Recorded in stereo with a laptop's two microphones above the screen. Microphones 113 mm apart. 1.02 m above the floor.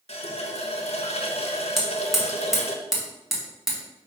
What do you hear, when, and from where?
0.1 s a running tap: 65° left (ahead or behind), 0.7 m
1.8 s hammering: centre (ahead or behind), 0.9 m